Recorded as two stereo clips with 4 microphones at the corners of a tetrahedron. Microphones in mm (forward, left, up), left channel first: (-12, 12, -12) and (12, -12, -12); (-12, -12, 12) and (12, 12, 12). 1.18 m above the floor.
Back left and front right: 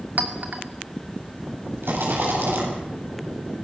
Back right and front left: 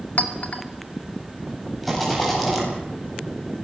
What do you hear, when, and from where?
0.2 s a clink: 90° right, 2 m
1.8 s a rattle: 45° right, 8.5 m